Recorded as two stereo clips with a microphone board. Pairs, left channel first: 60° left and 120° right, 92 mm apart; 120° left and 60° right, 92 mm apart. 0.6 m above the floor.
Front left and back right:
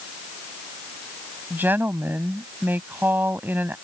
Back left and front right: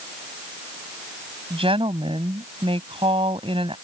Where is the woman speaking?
50° right.